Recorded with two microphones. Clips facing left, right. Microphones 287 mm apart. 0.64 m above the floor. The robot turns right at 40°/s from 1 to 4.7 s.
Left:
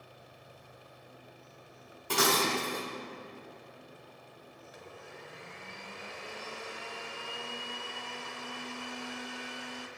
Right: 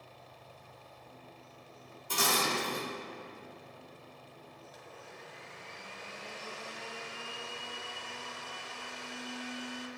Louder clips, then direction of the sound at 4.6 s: Left 4 dB; 70° left (ahead or behind).